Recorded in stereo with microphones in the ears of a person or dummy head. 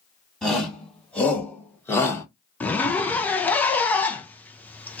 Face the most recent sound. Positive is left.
turn(degrees=5)  # may be behind; listen again after turning